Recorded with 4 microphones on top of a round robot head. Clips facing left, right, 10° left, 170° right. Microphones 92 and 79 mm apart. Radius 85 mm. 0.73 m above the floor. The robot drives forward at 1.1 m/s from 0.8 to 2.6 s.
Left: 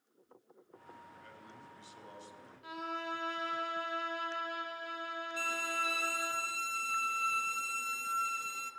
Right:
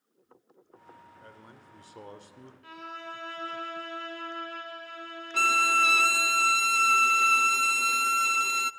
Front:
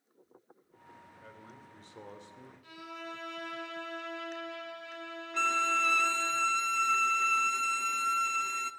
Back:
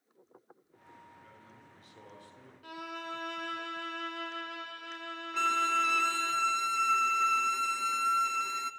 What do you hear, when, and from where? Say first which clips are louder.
1.2 s a man speaking: right 2 dB, front 4 dB; 40° right, 3 m; by 2.5 s 65° right, 2.5 m
2.6 s a violin: left 2 dB, back 4 dB; 165° left, 3.5 m
5.3 s a violin: right 14 dB, back 1 dB; 80° right, 0.6 m